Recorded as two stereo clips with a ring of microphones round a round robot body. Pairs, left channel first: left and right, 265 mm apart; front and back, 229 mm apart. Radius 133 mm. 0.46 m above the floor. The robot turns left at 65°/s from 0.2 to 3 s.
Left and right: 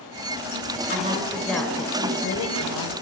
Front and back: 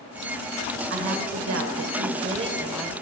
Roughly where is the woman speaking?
Behind right.